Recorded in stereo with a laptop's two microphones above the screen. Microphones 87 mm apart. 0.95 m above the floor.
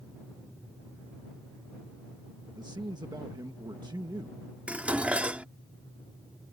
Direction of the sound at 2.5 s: 55° right (ahead or behind).